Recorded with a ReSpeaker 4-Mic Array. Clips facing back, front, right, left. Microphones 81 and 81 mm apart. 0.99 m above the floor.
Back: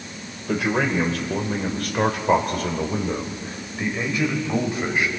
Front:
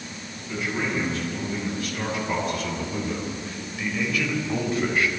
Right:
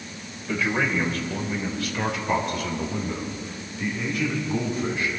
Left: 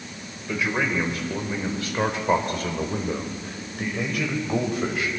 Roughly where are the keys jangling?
No keys jangling in this recording.